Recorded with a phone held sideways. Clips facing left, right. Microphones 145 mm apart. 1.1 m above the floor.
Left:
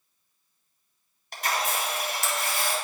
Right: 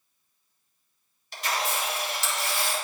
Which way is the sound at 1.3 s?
55° left (ahead or behind).